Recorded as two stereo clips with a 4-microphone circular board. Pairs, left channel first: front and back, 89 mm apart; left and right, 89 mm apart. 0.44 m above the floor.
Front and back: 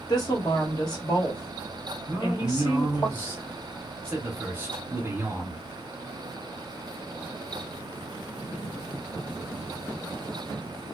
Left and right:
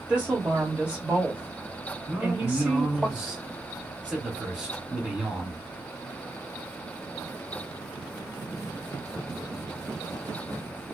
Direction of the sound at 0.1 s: 20° right.